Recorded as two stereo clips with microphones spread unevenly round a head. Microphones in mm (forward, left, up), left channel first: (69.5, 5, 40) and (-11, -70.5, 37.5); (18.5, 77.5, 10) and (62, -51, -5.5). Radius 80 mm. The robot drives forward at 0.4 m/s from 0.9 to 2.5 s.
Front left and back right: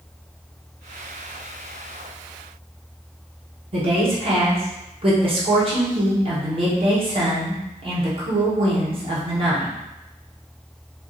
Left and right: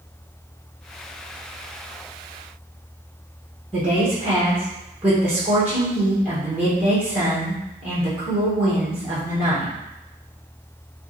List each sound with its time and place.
3.7 s a woman speaking: 145° right, 1.1 m